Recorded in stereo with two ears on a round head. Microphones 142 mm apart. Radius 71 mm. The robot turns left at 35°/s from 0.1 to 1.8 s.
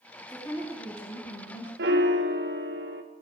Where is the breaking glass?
No breaking glass in this recording.